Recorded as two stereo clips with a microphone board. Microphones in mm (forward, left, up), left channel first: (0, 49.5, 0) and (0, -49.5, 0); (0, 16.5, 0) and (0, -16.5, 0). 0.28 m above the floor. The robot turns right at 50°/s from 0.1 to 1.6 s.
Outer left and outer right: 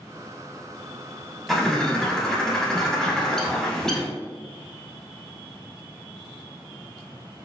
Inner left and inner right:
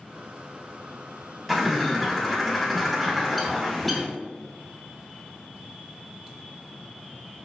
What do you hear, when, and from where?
1.5 s a bird: centre (ahead or behind), 0.5 m; by 4.1 s 5° left (ahead or behind), 0.5 m